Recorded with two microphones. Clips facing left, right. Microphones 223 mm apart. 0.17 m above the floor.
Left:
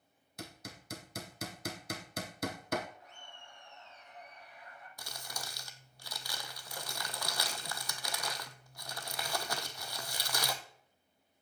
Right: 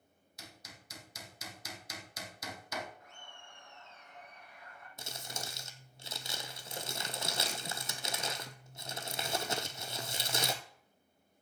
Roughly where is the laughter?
Right.